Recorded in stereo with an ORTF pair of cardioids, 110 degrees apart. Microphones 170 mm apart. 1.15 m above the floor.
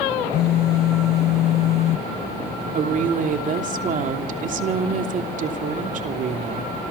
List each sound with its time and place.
0.3 s a phone buzzing: 65° left, 0.7 m
2.8 s a woman speaking: 50° right, 3 m